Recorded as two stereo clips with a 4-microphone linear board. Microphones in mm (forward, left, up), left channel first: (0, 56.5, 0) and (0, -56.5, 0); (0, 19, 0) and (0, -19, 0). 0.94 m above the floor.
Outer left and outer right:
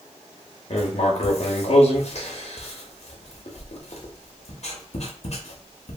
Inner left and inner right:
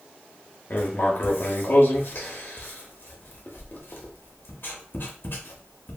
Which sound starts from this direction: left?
Writing, at 0.7 s.